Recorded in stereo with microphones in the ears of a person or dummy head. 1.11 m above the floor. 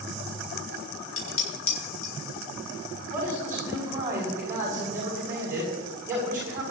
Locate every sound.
1.2 s dishes clattering: 70° left (ahead or behind), 5 m
3.1 s a man speaking: 10° right (ahead or behind), 5 m